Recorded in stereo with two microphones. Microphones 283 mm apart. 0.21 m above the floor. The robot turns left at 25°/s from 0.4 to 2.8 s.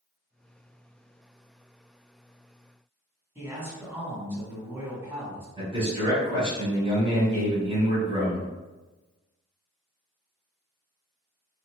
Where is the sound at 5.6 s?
20° right (ahead or behind), 1.3 m.